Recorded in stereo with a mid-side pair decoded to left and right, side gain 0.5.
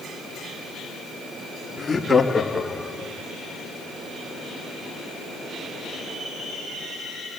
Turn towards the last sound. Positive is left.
turn(degrees=-5)